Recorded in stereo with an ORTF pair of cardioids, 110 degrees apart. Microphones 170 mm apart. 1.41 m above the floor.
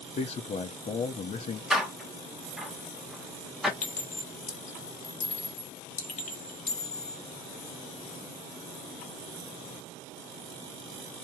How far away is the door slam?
About 0.8 m.